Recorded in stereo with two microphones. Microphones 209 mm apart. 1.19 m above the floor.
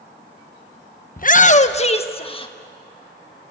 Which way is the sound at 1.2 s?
45° left (ahead or behind).